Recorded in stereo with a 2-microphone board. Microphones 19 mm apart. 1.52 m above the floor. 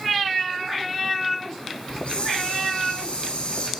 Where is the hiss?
70° left (ahead or behind), 7.5 m.